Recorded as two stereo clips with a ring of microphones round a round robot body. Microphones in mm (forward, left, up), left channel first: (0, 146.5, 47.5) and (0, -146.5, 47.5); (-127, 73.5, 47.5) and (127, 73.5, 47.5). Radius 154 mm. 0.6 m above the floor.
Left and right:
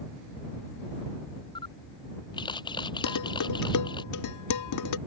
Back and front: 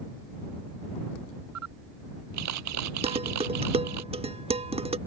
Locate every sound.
1.6 s a camera shutter: 15° left
3.0 s dishes clattering: 70° left